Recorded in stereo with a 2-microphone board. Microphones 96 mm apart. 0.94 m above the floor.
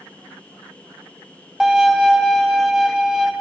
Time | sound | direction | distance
1.6 | a violin | 5° right (ahead or behind) | 1.2 m